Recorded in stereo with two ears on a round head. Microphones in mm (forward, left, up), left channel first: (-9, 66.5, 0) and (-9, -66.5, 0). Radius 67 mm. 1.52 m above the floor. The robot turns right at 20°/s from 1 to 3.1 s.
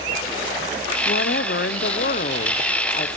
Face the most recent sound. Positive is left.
turn(degrees=140)